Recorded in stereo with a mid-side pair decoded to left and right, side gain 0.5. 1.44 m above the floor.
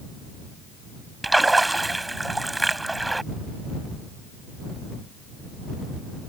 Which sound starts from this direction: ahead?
A splash, at 1.2 s.